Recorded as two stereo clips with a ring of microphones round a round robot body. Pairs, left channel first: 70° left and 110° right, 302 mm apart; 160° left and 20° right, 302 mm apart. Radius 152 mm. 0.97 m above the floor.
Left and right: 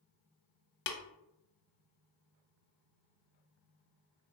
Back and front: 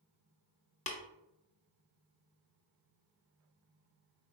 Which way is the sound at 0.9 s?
100° left.